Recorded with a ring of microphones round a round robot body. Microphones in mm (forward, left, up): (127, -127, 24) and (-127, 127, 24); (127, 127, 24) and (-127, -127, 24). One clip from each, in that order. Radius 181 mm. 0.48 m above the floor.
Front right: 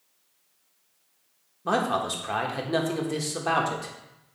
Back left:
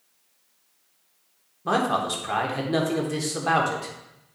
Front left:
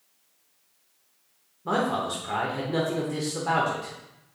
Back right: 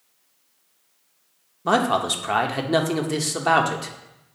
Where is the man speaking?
130° right, 1.0 m.